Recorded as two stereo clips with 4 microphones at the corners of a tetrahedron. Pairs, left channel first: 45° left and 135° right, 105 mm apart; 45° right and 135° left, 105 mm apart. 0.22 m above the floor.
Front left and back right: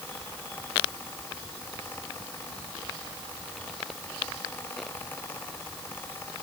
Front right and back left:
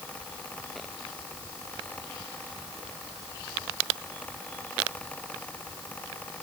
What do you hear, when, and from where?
Only background noise.